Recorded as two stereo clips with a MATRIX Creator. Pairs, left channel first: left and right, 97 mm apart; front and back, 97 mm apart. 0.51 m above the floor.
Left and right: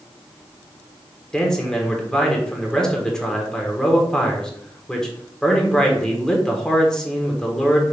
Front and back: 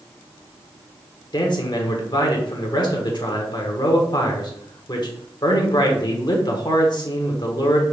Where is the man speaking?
10° left, 1.1 m.